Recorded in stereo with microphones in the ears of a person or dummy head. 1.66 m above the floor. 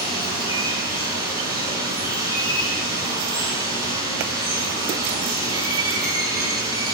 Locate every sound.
0.0 s running water: 15° right (ahead or behind), 3.5 m